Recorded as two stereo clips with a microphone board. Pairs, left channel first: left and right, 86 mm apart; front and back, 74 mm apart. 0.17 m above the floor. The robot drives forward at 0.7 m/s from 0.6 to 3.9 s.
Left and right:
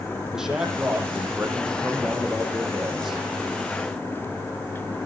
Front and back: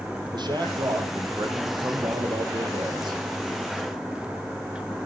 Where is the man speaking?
175° right, 5.5 m.